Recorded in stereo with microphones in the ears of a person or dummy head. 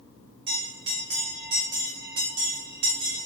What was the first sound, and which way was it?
A bell, 30° right (ahead or behind).